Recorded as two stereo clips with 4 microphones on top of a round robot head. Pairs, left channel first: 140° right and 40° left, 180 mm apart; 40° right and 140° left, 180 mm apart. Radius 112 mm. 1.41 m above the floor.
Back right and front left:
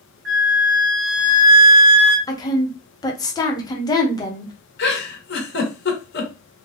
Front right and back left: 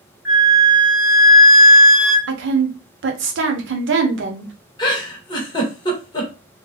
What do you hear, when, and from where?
0.2 s a flute: 55° left, 1.6 m
2.3 s a woman speaking: 150° left, 1.0 m
4.8 s a giggle: 110° right, 1.1 m